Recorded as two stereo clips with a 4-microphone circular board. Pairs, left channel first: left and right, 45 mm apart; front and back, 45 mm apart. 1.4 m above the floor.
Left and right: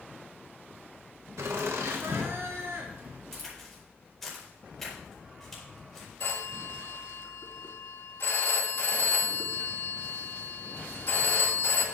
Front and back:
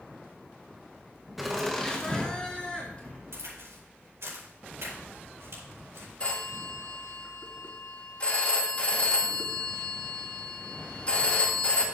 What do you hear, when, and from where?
1.4 s laughter: 90° right, 1.0 m; by 3.2 s 60° right, 2.5 m
3.3 s a crack: 175° left, 4 m
6.2 s a phone ringing: 65° left, 2.5 m